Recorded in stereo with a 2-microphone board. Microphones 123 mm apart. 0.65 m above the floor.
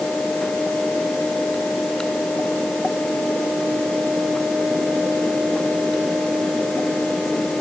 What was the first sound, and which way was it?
Only background noise.